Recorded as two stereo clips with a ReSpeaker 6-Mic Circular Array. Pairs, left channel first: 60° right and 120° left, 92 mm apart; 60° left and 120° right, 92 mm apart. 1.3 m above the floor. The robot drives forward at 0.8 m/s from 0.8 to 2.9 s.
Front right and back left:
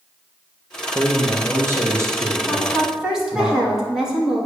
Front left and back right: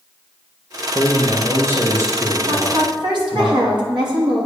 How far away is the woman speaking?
About 2.5 m.